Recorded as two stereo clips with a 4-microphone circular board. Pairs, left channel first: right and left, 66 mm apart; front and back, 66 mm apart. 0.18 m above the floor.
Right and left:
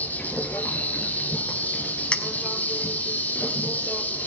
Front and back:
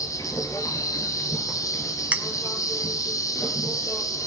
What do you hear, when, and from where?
0.0 s an insect: 25° right, 1.3 m
2.1 s a clink: 140° right, 0.7 m